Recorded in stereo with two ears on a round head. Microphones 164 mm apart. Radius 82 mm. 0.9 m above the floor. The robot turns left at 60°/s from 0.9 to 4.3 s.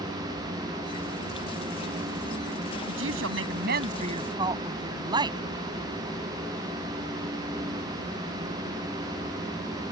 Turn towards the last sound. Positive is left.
turn(degrees=-155)